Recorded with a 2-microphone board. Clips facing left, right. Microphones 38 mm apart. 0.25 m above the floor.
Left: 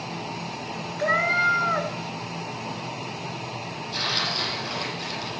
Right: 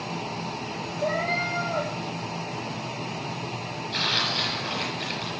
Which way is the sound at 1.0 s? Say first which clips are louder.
Left 5 dB; 65° left (ahead or behind).